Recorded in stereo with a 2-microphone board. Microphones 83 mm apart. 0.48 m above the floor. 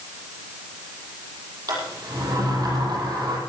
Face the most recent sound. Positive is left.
turn(degrees=-50)  # may be behind; listen again after turning